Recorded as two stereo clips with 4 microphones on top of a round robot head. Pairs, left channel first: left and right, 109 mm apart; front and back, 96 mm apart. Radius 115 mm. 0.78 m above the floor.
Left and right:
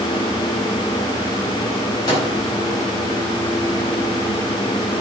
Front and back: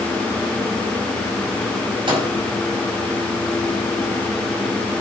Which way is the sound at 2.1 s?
145° left.